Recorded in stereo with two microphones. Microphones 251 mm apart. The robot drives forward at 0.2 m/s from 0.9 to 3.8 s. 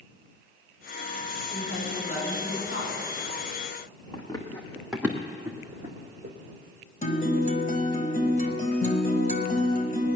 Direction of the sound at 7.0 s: 35° left (ahead or behind).